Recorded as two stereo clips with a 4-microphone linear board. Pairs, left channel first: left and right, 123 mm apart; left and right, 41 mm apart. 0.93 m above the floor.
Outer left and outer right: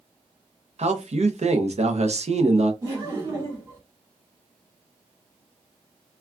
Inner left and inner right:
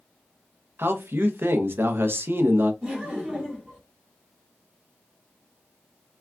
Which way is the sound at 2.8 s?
25° right (ahead or behind).